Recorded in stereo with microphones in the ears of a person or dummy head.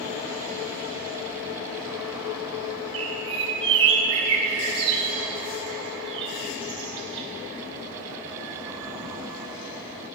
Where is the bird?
25° right (ahead or behind), 2 m.